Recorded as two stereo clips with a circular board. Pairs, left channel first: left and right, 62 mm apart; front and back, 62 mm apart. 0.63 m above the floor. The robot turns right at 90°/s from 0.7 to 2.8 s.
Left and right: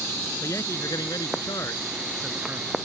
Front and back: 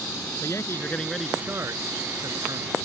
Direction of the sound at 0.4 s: 45° left.